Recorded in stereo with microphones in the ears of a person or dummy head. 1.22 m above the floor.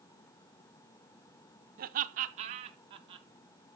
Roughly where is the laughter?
Right.